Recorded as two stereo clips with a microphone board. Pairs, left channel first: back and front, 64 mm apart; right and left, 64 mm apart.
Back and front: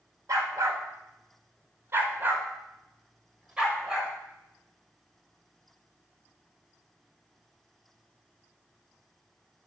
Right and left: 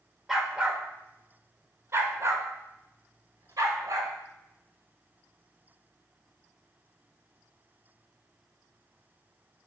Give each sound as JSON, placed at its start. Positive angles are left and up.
{"t": 0.3, "sound": "a dog barking", "azimuth_deg": 10, "distance_m": 1.5}